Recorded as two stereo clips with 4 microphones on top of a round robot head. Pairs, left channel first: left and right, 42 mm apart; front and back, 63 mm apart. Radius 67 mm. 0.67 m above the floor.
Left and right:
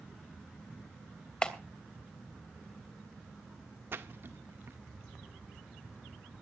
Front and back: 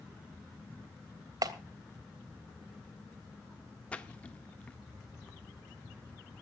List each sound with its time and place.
1.4 s a clap: 160° left, 3 m
3.9 s a splash: 70° right, 1.9 m